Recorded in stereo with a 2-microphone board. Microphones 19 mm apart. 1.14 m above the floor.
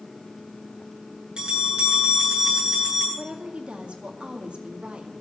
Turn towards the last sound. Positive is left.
turn(degrees=-75)  # may be behind; listen again after turning